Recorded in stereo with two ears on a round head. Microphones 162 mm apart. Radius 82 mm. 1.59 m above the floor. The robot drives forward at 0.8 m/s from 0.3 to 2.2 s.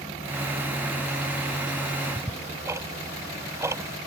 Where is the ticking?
15° right (ahead or behind).